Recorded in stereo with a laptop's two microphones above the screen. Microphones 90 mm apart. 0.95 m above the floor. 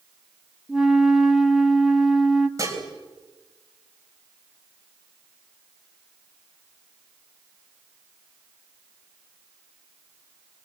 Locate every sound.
0.7 s a flute: 5° right (ahead or behind), 1.3 m
2.6 s dishes clattering: 35° right (ahead or behind), 4 m